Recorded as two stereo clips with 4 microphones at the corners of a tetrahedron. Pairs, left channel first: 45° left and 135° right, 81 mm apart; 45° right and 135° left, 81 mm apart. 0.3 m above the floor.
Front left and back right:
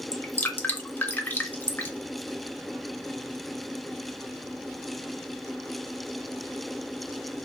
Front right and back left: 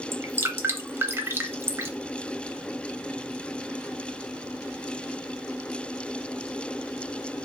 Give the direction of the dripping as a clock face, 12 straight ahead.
9 o'clock.